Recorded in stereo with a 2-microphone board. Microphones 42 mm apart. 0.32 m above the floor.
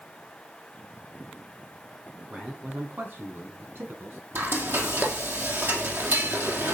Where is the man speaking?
30° right (ahead or behind), 3 m; by 4.2 s 70° right (ahead or behind), 3.5 m.